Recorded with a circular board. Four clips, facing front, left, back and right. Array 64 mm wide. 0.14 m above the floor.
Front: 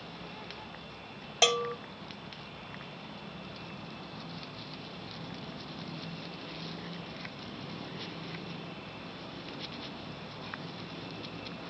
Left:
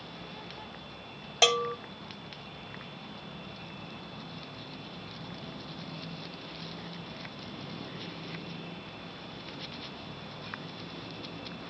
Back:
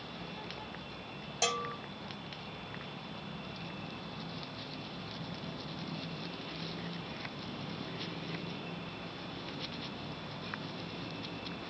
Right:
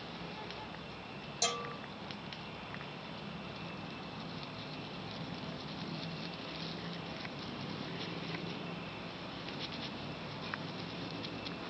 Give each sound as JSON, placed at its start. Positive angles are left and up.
{"t": 1.4, "sound": "a bell", "azimuth_deg": 60, "distance_m": 0.7}